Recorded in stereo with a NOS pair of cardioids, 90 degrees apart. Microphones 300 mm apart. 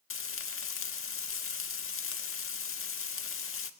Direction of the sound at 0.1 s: 45° left.